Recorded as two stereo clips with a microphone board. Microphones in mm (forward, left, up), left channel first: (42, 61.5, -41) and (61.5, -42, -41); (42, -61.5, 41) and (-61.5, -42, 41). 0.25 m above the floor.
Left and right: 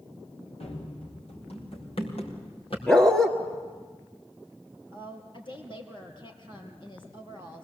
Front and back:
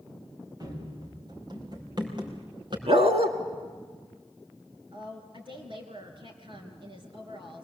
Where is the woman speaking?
135° left, 3.5 m.